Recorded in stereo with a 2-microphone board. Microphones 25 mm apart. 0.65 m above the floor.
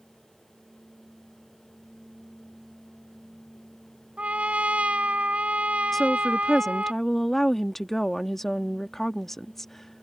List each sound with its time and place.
4.2 s a trumpet: 65° right (ahead or behind)
5.9 s a woman speaking: 15° left (ahead or behind)